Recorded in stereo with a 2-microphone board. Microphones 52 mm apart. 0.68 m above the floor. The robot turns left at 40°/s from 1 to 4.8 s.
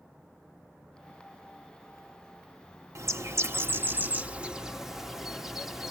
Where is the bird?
100° right, 0.9 m; by 5.9 s 175° right, 0.9 m.